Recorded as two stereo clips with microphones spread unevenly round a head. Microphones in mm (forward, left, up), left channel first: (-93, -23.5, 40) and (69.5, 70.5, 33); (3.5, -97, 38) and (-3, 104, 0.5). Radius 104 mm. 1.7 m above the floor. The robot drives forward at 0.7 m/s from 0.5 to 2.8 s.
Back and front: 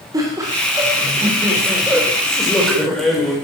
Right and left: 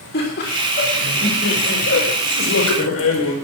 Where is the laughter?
45° right, 4 m; by 3.4 s 70° right, 3 m.